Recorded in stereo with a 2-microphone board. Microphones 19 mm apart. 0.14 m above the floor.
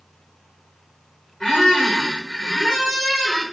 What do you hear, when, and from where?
1.4 s a squeak: 30° left (ahead or behind), 1.5 m